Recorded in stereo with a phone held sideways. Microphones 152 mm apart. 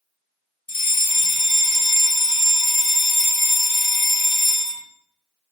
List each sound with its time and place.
0.7 s a fire alarm: 45° left (ahead or behind), 2.5 m